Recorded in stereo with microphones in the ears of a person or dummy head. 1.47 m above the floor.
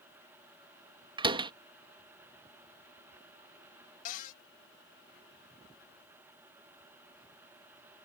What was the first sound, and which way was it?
A door slam, 25° right (ahead or behind).